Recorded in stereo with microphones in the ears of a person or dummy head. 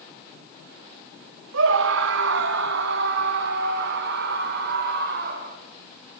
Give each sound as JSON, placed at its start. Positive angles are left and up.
{"t": 1.5, "sound": "a scream", "side_deg": -75, "distance_m": 2.0}